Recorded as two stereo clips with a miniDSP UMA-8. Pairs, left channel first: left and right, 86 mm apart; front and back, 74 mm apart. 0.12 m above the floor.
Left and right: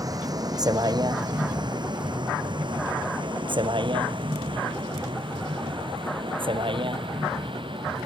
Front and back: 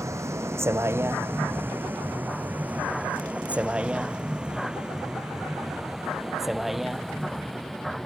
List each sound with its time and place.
0.0 s a vehicle: 135° right; by 8.1 s 90° right